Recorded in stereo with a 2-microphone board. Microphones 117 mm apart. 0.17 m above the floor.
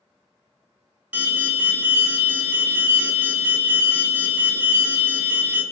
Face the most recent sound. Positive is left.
turn(degrees=-15)  # may be behind; listen again after turning